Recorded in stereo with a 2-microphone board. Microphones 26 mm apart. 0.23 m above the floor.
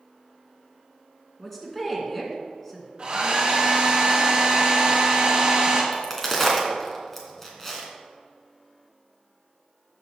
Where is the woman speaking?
10° left (ahead or behind), 2.5 m.